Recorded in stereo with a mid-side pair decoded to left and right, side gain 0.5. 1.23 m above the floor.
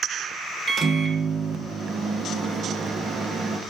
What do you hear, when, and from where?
0.7 s a microwave: 45° right, 0.5 m